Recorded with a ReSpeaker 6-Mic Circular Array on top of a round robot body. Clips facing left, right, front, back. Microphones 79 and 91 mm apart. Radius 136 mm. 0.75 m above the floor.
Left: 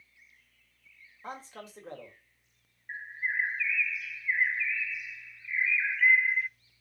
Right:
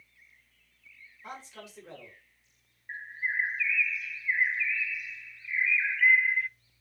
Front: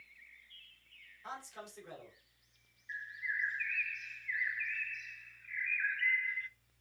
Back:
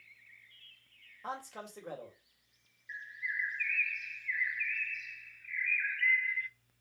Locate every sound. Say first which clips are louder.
1.2 s a man speaking: left 2 dB, back 5 dB; 140° left, 3.5 m
2.9 s a bird: even, even; 10° left, 0.5 m